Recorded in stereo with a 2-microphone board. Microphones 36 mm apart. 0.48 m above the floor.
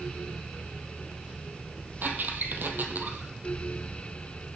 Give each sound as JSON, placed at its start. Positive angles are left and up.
{"t": 2.0, "sound": "a squeak", "side_deg": -65, "distance_m": 3.0}